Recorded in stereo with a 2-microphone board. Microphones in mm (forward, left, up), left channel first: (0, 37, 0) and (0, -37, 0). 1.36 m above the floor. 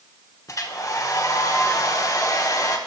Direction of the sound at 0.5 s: 50° left (ahead or behind).